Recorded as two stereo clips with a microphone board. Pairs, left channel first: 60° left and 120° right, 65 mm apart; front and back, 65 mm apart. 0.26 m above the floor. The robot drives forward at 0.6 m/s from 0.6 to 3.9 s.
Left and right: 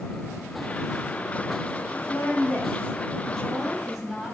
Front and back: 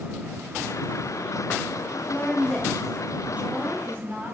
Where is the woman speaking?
45° left, 1.1 m; by 4.3 s 150° left, 1.2 m.